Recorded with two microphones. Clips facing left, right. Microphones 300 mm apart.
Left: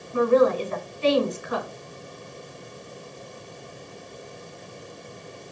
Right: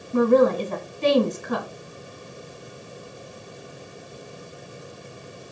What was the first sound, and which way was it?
A woman speaking, 50° right (ahead or behind).